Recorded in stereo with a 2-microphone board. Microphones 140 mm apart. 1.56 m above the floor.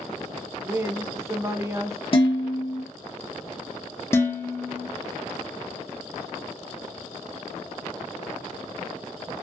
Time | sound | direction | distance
0.6 | a woman speaking | 20° right (ahead or behind) | 0.6 m
2.1 | dishes clattering | 40° left (ahead or behind) | 0.9 m
4.1 | dishes clattering | 15° left (ahead or behind) | 0.6 m